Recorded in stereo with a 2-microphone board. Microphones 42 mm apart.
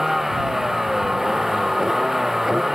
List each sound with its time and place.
0.0 s a vehicle: 5° right (ahead or behind)